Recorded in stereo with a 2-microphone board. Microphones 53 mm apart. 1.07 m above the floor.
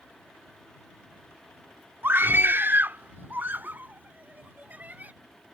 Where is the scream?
45° right (ahead or behind); by 5.1 s 35° right (ahead or behind).